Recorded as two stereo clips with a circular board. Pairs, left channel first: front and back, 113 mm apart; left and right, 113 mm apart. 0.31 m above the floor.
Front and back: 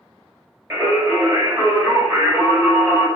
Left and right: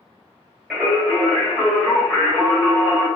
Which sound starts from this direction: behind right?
Singing, at 0.7 s.